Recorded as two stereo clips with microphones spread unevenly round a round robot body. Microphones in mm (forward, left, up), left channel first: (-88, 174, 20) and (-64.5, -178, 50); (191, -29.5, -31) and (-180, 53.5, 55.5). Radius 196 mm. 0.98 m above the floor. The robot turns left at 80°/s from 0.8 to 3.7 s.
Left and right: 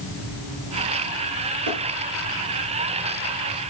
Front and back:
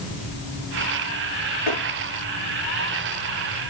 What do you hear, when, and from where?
1.7 s tapping: 35° right, 6 m; by 1.8 s 45° right, 6 m